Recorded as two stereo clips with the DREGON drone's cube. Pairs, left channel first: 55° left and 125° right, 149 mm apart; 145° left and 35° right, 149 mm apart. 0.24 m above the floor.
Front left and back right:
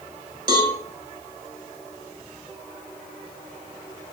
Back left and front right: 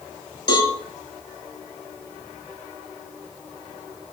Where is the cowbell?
170° right, 0.7 m.